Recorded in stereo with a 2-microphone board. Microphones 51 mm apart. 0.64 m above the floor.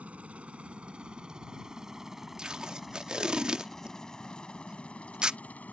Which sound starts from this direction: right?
A helicopter, at 0.0 s.